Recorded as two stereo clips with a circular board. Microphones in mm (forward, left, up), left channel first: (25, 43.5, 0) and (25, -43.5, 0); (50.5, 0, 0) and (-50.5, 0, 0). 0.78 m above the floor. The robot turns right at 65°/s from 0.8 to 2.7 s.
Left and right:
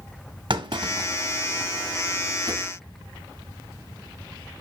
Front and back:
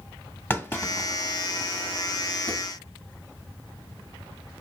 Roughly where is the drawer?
Behind right.